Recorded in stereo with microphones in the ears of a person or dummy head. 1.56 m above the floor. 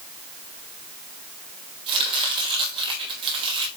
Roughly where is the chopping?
Right.